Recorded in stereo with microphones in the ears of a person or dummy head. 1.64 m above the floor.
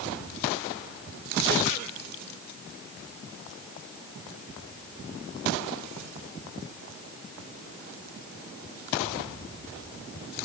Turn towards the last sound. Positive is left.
No sound to turn to.